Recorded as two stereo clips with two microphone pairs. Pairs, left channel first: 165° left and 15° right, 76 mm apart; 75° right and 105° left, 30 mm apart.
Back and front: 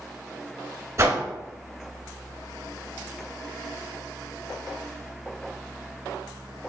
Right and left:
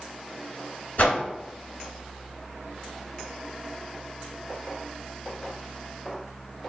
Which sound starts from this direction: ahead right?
A whoosh, at 1.0 s.